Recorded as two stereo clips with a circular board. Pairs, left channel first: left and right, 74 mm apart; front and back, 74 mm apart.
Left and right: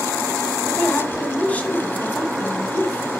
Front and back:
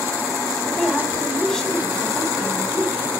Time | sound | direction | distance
0.7 | a woman speaking | 70° left | 1.3 m